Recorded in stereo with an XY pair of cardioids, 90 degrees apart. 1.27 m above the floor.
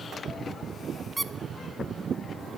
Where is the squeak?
15° right, 0.7 m.